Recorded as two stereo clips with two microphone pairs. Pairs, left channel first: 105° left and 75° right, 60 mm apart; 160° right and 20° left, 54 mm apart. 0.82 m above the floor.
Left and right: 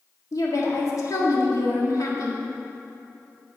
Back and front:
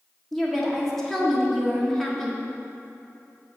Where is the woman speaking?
115° left, 1.4 m.